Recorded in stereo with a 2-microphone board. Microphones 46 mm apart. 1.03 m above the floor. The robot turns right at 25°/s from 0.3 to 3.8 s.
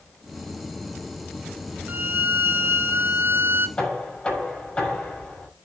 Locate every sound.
1.9 s a violin: 120° right, 1.0 m; by 3.7 s 75° right, 1.0 m
3.8 s knocking: 20° left (ahead or behind), 6.5 m; by 5.5 s 15° left (ahead or behind), 6.5 m